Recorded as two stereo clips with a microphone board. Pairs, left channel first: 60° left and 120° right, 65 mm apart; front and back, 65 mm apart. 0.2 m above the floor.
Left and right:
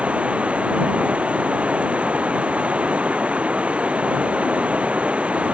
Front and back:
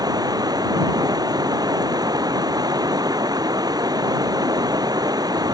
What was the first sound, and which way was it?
Running water, 170° left.